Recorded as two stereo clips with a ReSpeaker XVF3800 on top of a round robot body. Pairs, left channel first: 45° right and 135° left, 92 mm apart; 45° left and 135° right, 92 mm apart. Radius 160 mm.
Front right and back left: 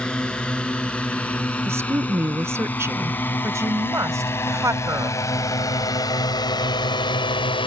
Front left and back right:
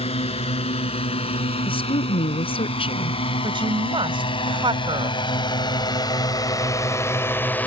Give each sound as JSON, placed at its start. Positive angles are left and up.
{"t": 0.0, "sound": "a drone", "azimuth_deg": 35}
{"t": 1.6, "sound": "a woman speaking", "azimuth_deg": 70}
{"t": 3.4, "sound": "a woman speaking", "azimuth_deg": -165}